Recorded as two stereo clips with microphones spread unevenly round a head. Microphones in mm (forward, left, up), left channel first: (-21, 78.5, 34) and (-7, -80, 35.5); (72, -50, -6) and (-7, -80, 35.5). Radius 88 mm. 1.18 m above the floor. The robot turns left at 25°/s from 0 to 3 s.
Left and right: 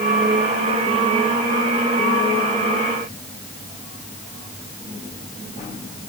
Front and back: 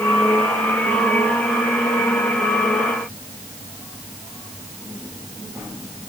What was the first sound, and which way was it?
Only background noise.